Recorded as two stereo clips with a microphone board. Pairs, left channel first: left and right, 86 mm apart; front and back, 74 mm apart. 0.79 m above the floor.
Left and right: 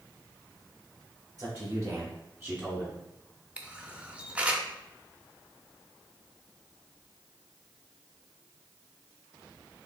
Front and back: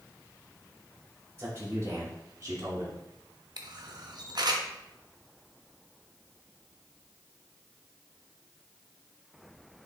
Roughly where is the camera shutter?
Behind.